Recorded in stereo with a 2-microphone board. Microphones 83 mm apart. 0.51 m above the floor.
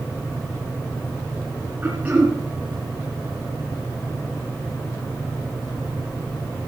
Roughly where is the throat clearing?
Centre.